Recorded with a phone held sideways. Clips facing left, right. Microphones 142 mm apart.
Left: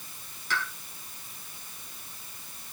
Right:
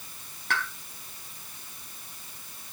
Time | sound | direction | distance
0.5 | a pop | 60° right (ahead or behind) | 4.5 m